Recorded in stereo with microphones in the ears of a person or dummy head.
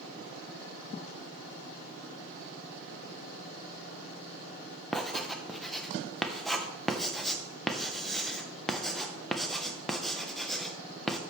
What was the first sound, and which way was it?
Writing, 5° left (ahead or behind).